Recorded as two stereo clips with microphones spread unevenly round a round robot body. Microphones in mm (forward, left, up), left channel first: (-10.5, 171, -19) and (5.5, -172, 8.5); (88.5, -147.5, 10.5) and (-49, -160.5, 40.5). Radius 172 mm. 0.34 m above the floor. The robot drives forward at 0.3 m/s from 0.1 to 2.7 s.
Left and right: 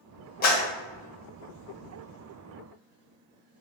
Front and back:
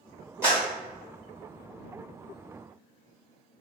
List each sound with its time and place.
0.4 s a clap: 105° left, 1.2 m; by 0.6 s 110° left, 1.3 m